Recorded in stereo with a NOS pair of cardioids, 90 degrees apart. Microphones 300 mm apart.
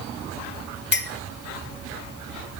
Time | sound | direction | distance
0.9 | a clink | 35° left | 0.6 m